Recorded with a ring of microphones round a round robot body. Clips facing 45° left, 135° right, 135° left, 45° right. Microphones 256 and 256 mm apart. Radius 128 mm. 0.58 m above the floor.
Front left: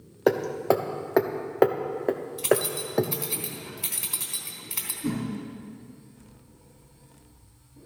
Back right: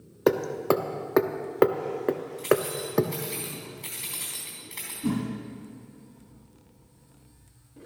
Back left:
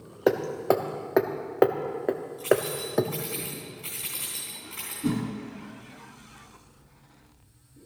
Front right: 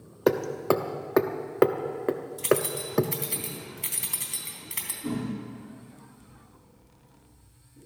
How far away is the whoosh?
About 3.5 m.